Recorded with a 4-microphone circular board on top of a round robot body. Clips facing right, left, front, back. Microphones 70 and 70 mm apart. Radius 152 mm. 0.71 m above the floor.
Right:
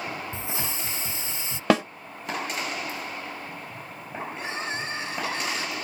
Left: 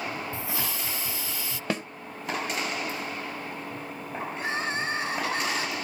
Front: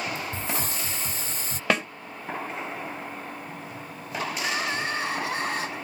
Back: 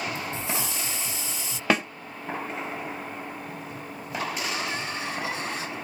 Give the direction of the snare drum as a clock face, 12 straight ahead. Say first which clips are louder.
Right 10 dB, back 1 dB; 3 o'clock.